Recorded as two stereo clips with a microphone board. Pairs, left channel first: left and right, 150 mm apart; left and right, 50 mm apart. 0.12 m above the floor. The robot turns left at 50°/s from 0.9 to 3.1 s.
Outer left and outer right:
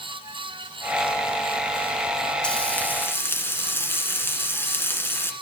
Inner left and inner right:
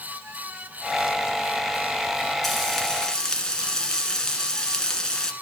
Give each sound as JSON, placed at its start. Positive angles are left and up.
{"t": 2.4, "sound": "frying", "side_deg": 5, "distance_m": 1.5}